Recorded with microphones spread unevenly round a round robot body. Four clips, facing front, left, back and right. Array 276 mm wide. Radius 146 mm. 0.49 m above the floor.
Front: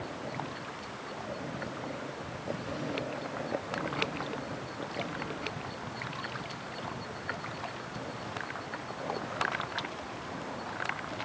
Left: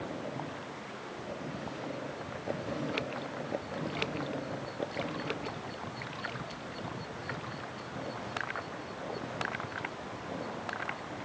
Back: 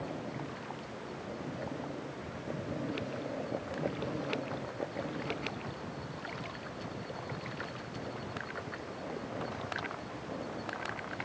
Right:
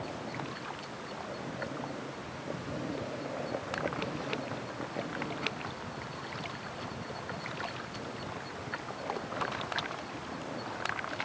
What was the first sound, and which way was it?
Only background noise.